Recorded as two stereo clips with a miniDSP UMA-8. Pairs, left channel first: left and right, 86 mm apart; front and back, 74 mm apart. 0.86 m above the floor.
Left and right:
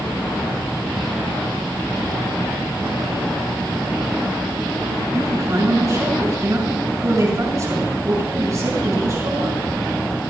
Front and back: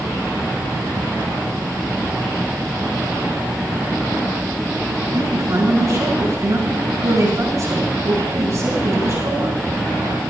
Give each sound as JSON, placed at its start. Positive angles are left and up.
{"t": 5.1, "sound": "a man speaking", "azimuth_deg": -140, "distance_m": 6.0}